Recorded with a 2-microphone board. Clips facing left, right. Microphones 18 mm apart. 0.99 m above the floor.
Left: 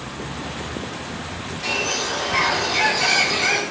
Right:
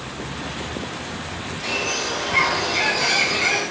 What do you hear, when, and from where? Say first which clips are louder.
1.6 s a bird: left 1 dB; 20° left (ahead or behind), 3 m